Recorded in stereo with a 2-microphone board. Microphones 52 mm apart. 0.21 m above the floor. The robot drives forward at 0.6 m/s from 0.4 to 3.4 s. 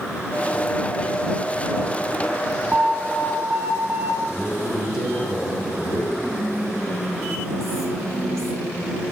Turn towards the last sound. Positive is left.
turn(degrees=10)  # may be behind; listen again after turning